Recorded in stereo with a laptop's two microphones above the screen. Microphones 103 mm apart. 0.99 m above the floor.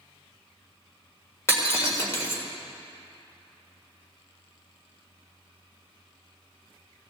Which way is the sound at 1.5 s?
25° left (ahead or behind).